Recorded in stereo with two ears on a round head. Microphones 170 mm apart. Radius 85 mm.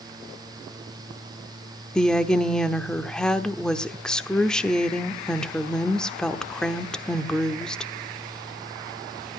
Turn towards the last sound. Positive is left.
turn(degrees=5)  # may be behind; listen again after turning